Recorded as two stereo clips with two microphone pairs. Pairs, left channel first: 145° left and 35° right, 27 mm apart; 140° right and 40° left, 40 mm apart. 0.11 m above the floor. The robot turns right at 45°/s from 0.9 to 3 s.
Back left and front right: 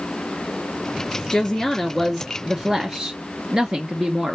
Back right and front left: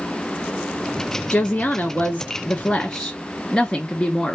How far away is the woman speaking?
About 1.3 m.